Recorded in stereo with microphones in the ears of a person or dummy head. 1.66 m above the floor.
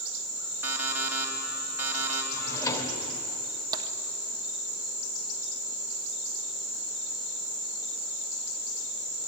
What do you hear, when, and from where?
0.6 s an alarm clock: 15° right (ahead or behind), 3.5 m
2.3 s a drawer: 20° left (ahead or behind), 3 m
3.7 s tapping: 25° right (ahead or behind), 1.3 m